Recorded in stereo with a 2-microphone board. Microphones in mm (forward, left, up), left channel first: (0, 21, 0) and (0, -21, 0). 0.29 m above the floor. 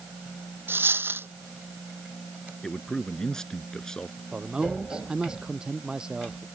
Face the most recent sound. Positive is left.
turn(degrees=-20)  # may be behind; listen again after turning